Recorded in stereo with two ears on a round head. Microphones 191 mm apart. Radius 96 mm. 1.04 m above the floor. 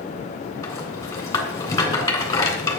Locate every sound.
0.6 s a rattle: 15° left (ahead or behind), 3 m